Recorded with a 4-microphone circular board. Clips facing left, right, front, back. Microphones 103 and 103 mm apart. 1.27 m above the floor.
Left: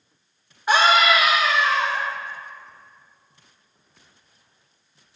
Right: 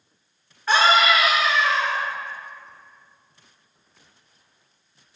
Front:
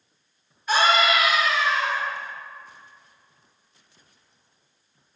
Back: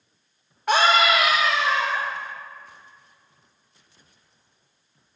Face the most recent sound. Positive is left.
turn(degrees=165)